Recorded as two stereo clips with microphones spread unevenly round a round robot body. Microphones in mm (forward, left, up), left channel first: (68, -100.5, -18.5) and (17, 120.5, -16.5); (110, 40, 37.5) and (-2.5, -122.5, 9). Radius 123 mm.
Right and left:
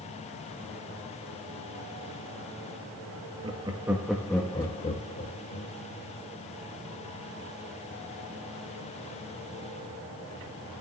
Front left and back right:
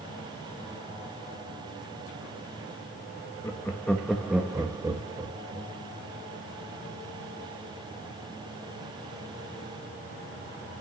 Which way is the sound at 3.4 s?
130° left.